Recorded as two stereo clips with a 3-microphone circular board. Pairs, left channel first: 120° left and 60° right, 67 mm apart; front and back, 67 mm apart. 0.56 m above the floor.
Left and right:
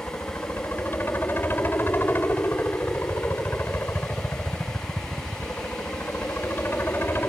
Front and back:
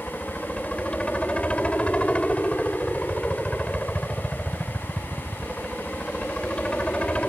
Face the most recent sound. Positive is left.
turn(degrees=70)